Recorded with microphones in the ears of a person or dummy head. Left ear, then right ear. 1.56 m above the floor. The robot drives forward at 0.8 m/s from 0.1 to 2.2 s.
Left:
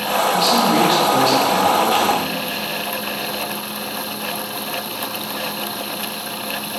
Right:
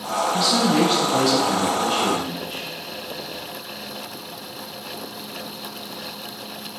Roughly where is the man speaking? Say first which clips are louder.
Left 3 dB; centre.